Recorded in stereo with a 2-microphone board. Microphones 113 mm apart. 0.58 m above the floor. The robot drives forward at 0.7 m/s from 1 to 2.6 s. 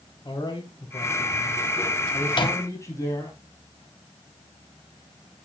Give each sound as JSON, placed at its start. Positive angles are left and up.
{"t": 0.2, "sound": "a man speaking", "side_deg": 40, "distance_m": 2.5}
{"t": 2.3, "sound": "a microwave", "side_deg": 45, "distance_m": 1.1}